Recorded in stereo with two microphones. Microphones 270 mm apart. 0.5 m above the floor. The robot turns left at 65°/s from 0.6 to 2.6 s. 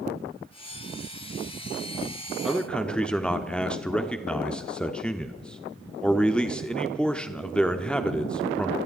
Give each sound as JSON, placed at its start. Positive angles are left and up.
{"t": 2.5, "sound": "a man speaking", "side_deg": 0, "distance_m": 1.1}